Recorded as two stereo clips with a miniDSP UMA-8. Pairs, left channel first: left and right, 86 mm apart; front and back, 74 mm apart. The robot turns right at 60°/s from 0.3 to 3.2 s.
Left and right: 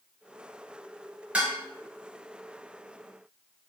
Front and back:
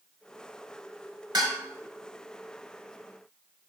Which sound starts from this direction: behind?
Dishes clattering, at 1.3 s.